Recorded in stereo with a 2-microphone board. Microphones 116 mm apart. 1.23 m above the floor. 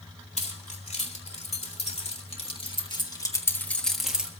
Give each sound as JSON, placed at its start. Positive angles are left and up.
{"t": 0.4, "sound": "keys jangling", "side_deg": 85, "distance_m": 3.0}